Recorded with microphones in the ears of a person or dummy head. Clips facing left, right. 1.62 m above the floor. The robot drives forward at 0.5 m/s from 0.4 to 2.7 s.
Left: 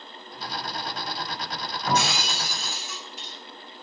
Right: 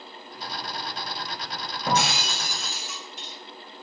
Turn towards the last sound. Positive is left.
turn(degrees=-50)  # may be behind; listen again after turning